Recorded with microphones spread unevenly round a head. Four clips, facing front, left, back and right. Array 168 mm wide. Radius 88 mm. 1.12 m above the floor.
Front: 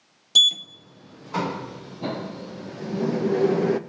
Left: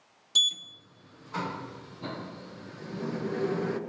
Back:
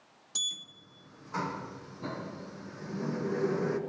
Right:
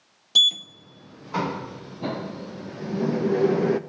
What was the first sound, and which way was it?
A sliding door, 40° right.